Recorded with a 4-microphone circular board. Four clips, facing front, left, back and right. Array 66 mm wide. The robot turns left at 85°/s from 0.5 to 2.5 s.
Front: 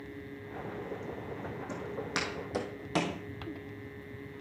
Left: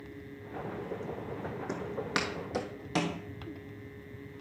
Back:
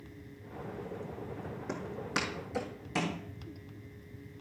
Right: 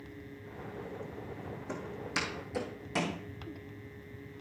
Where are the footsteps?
130° left, 2.5 m; by 3.2 s 15° left, 2 m.